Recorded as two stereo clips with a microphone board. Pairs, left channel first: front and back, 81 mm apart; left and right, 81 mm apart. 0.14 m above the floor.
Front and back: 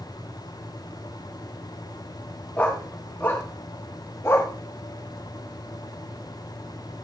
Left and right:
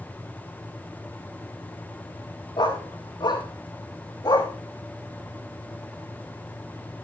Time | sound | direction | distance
2.6 | a dog barking | 75° left | 5.5 m